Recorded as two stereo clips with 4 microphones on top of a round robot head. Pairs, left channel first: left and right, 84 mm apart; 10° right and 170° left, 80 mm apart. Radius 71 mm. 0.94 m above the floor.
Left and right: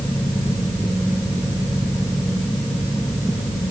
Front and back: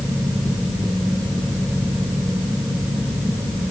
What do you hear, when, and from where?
Only background noise.